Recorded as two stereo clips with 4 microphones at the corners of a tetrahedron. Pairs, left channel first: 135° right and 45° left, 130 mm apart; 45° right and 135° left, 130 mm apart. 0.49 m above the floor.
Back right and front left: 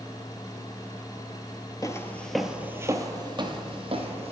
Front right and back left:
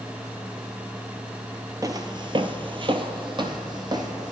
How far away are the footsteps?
About 0.6 m.